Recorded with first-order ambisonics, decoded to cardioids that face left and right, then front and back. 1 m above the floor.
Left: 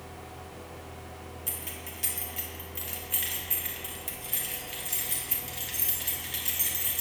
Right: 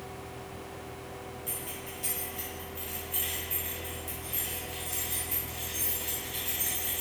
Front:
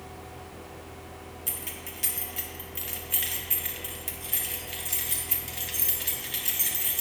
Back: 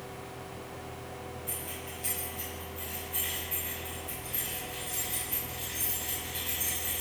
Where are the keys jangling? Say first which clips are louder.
Left 2 dB, front 1 dB; 25° left, 1.3 m.